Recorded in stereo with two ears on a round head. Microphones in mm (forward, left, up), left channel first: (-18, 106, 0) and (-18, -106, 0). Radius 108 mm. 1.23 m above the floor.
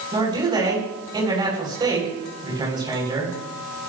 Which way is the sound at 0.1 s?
20° right (ahead or behind).